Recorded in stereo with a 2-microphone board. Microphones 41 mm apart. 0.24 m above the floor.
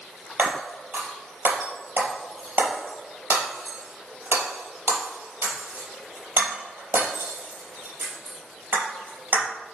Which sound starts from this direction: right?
Breaking glass, at 0.4 s.